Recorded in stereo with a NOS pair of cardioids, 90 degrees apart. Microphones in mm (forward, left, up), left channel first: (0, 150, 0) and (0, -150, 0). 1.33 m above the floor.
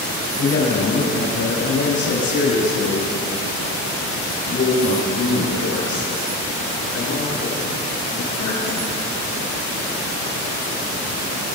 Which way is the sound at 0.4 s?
55° left.